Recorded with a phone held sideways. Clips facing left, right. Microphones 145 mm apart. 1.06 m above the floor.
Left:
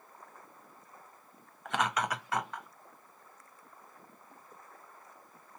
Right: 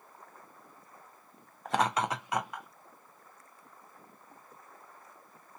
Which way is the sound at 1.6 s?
35° right (ahead or behind).